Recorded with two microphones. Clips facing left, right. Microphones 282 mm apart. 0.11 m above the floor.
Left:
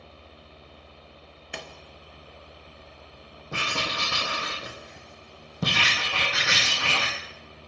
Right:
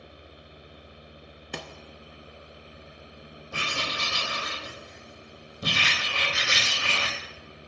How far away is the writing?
About 1.9 m.